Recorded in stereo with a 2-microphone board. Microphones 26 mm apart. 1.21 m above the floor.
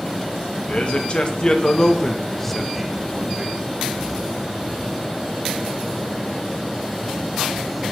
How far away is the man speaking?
About 1.9 m.